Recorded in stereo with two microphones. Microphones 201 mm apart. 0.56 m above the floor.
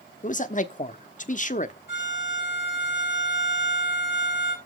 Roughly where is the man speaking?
Left.